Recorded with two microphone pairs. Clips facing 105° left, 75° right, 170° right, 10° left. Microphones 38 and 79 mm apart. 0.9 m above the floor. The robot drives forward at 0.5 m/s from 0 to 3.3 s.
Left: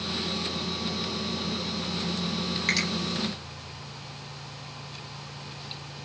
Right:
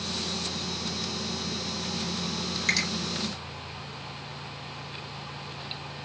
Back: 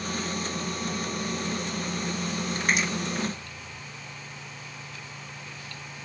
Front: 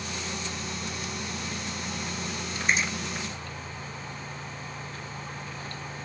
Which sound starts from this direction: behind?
A finger snap, at 2.7 s.